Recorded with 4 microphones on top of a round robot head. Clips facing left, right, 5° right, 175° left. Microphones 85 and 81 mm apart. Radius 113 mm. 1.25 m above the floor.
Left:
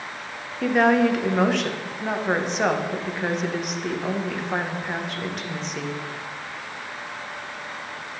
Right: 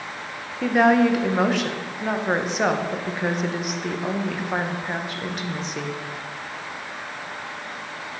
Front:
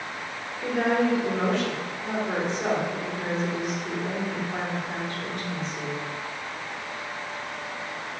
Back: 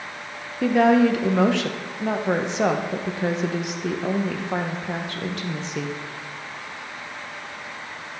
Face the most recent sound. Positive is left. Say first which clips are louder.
# right 1 dB, back 7 dB
turn(degrees=-175)